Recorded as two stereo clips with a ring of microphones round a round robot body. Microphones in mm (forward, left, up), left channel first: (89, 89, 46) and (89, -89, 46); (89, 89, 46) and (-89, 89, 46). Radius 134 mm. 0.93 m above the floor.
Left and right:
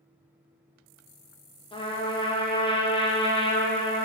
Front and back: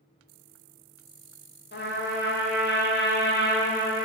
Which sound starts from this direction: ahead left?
A trumpet, at 1.7 s.